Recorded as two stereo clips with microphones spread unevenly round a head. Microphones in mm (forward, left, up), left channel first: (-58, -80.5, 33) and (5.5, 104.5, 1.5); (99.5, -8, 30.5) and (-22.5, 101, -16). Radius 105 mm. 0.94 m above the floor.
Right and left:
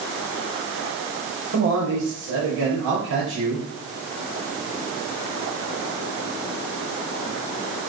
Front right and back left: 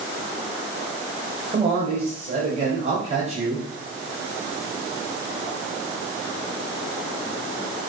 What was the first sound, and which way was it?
A man speaking, 90° left.